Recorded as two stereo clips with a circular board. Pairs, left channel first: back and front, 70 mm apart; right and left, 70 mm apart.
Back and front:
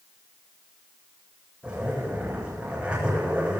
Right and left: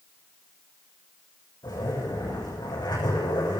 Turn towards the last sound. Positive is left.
turn(degrees=-75)